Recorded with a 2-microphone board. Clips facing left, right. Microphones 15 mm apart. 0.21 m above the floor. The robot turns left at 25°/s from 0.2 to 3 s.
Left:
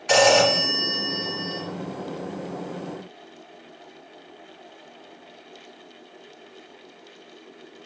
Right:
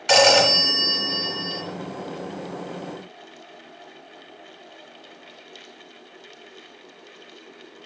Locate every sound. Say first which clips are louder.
0.1 s a phone ringing: right 2 dB; 125° right, 1.2 m; by 1.6 s 160° right, 1.2 m